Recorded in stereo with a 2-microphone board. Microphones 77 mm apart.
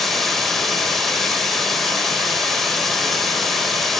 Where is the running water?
Centre (ahead or behind), 1.3 m.